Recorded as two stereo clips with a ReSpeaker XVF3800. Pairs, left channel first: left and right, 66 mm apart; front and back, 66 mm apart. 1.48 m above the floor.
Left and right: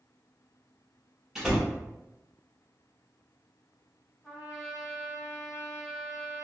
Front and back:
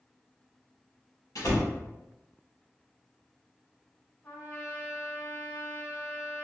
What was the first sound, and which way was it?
A door slam, 10° right.